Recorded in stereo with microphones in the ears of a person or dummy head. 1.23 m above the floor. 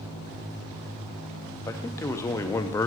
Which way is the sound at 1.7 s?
15° left (ahead or behind).